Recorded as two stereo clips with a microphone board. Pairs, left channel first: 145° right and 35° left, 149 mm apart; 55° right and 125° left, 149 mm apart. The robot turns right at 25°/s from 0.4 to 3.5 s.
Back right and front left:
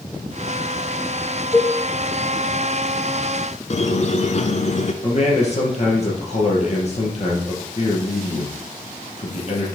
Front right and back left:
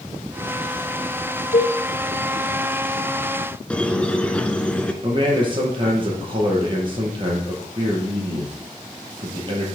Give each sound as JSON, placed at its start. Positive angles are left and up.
{"t": 1.5, "sound": "a cowbell", "azimuth_deg": -75, "distance_m": 1.2}
{"t": 3.7, "sound": "a squeak", "azimuth_deg": -135, "distance_m": 0.7}
{"t": 5.0, "sound": "a man speaking", "azimuth_deg": 175, "distance_m": 3.0}